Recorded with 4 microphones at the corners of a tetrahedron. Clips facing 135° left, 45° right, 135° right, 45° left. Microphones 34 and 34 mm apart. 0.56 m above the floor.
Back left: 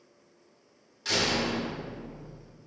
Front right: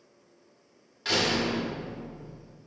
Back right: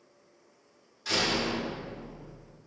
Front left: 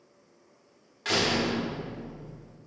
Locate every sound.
1.1 s a door slam: 20° left, 0.8 m